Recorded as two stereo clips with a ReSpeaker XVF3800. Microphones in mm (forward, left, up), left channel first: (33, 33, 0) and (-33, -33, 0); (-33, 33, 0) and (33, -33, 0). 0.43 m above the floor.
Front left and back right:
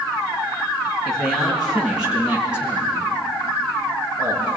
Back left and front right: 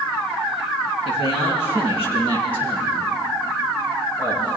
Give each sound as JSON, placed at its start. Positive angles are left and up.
{"t": 1.1, "sound": "a man speaking", "azimuth_deg": 135, "distance_m": 7.5}